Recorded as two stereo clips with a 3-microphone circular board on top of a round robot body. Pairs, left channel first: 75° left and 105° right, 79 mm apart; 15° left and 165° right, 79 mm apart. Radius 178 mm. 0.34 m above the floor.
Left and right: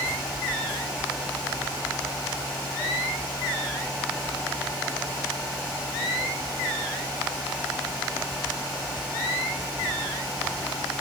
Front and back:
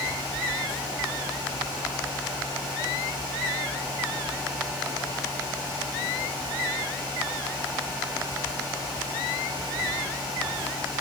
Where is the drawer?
I don't hear a drawer.